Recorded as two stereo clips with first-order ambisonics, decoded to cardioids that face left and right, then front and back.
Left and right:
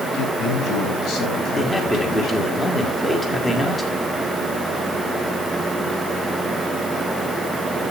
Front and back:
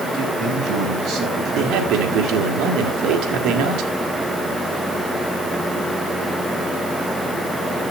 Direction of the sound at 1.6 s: 170° left.